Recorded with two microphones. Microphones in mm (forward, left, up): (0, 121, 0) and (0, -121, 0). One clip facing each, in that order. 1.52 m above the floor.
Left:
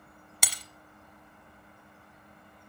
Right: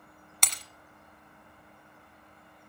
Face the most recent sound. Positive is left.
turn(degrees=10)  # may be behind; listen again after turning